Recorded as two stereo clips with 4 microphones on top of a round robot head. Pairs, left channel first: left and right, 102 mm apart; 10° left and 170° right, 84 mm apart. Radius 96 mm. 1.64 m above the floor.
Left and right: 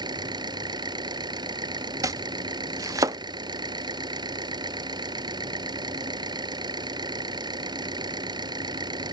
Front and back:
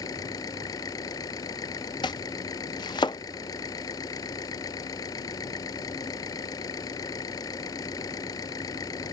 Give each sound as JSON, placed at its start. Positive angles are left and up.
{"t": 0.0, "sound": "an engine running", "azimuth_deg": -45}
{"t": 2.0, "sound": "chopping", "azimuth_deg": -45}